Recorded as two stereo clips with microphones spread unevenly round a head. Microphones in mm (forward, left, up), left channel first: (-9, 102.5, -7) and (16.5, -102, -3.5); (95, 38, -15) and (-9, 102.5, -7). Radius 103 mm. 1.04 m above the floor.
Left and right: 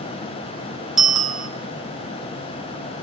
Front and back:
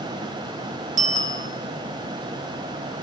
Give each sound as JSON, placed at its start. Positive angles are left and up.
{"t": 1.0, "sound": "a bicycle bell", "azimuth_deg": -170, "distance_m": 2.5}